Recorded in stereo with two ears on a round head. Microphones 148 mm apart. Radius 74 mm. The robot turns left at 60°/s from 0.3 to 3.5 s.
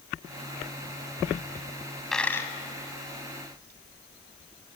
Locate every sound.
2.1 s a dropped coin: centre (ahead or behind), 1.6 m; by 2.5 s 25° left (ahead or behind), 1.6 m